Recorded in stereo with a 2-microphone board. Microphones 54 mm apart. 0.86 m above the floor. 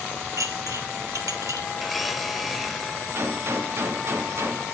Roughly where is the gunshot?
Right.